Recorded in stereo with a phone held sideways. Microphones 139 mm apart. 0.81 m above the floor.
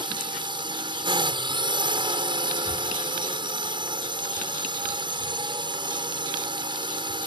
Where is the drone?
30° right (ahead or behind).